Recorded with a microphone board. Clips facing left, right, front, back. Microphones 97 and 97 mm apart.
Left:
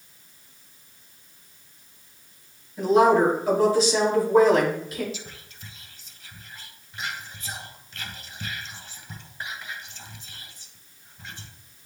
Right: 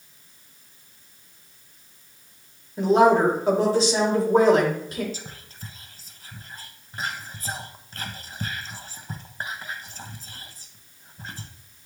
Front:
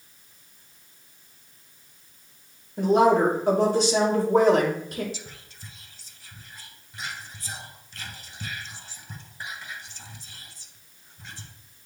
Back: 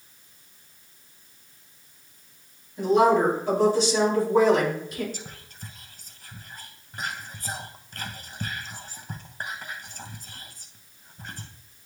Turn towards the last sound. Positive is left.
turn(degrees=-140)